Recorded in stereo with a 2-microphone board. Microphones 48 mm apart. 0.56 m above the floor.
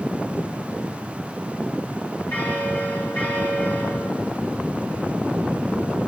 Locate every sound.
2.3 s a bell: 40° left (ahead or behind), 5.5 m